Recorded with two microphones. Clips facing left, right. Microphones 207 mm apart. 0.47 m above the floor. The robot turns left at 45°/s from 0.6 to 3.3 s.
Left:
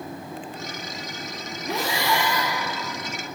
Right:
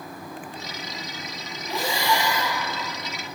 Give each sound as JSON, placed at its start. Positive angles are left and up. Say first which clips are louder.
{"t": 1.7, "sound": "breathing", "louder": "even", "azimuth_deg": 90, "distance_m": 2.5}